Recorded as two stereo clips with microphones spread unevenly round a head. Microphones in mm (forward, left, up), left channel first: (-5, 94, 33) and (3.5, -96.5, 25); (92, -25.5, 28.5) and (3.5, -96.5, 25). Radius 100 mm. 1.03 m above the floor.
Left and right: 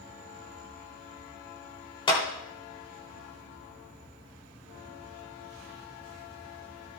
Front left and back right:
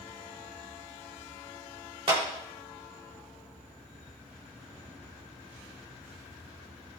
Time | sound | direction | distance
2.1 | a clap | 160° left | 3.5 m